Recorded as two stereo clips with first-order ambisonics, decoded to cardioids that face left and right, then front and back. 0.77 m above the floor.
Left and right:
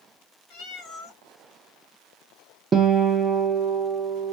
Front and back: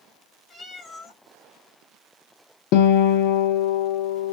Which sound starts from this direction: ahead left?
A cat meowing, at 0.5 s.